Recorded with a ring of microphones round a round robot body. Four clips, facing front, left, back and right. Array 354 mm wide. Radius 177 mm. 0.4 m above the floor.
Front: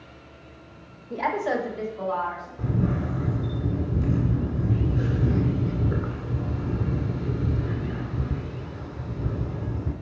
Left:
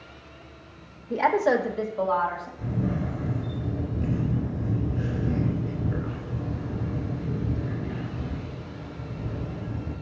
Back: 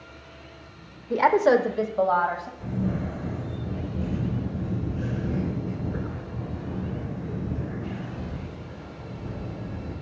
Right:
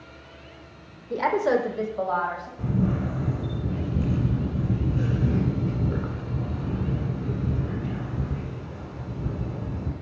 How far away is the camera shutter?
About 2.5 m.